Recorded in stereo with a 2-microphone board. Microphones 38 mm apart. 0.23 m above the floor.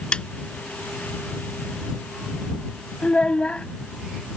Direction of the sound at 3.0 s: 40° left (ahead or behind).